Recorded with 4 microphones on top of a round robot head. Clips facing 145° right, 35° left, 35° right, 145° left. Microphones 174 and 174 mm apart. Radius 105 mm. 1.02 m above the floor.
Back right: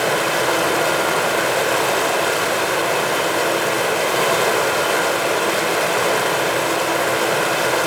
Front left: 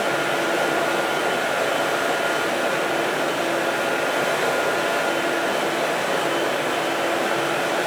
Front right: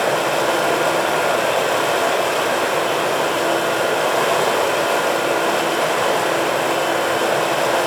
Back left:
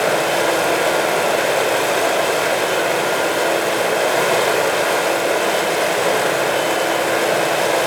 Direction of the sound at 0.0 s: 140° right.